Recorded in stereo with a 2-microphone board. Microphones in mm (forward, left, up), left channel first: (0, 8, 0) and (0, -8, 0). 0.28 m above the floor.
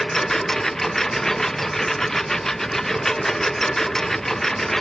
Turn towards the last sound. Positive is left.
turn(degrees=30)  # may be behind; listen again after turning